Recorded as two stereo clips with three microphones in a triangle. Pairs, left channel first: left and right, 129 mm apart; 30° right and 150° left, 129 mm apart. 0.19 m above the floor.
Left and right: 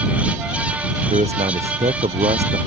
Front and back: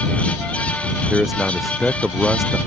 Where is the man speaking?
125° right.